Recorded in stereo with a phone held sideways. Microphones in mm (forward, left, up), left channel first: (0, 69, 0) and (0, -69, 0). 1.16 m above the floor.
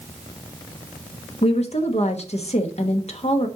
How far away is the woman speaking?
About 1.3 m.